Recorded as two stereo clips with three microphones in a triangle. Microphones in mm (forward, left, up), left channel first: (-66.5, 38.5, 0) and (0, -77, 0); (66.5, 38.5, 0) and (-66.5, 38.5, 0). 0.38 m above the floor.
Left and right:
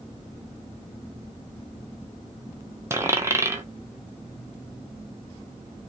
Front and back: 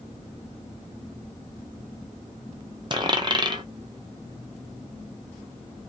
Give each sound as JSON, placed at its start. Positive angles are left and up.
{"t": 2.9, "sound": "a dropped coin", "azimuth_deg": -130, "distance_m": 0.9}